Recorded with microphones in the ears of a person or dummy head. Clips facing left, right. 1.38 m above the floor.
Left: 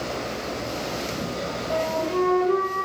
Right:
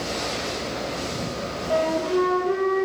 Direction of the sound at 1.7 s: 5° right (ahead or behind).